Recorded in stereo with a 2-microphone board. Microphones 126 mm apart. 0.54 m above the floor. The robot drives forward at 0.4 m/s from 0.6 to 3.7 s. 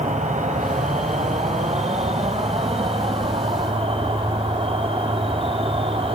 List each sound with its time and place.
0.0 s an insect: 75° right (ahead or behind), 1.9 m; by 6.2 s 50° right (ahead or behind), 2.5 m